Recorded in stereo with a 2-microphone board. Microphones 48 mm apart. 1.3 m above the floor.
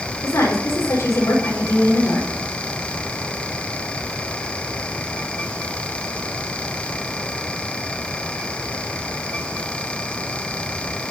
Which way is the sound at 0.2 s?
80° left.